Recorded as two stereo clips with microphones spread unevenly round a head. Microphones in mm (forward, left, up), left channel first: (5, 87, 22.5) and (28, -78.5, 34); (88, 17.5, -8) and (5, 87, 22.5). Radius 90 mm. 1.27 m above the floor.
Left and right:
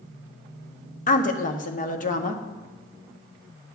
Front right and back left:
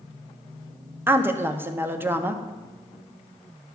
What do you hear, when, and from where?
1.1 s a woman speaking: 65° left, 0.8 m